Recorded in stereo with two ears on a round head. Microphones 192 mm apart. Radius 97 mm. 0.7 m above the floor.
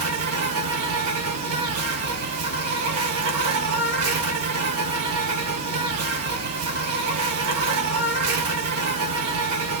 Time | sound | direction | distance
0.0 | an insect | 80° right | 1.6 m